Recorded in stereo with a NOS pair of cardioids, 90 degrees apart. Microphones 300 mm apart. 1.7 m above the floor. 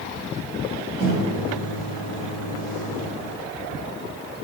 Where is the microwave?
70° right, 1.2 m.